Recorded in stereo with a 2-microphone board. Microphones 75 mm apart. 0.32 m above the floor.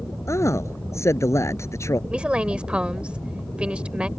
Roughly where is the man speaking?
Left.